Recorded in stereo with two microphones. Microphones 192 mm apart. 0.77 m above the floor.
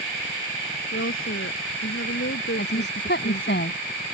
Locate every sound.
0.9 s a woman speaking: 85° left; by 3.6 s 75° left (ahead or behind)
2.6 s a woman speaking: 60° left (ahead or behind)